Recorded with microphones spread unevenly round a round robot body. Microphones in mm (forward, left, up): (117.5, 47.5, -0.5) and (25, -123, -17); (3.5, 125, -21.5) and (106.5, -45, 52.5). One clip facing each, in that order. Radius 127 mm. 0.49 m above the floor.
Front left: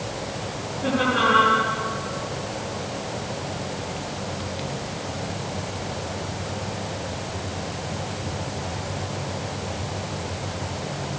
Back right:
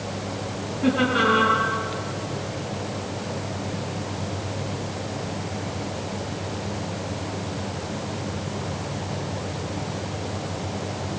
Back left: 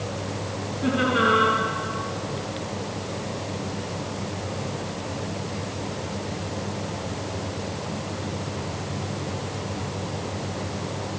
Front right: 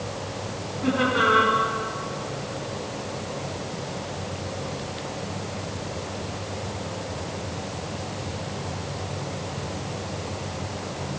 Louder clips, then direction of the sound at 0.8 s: Back right 2 dB, back left 1 dB; 170° right.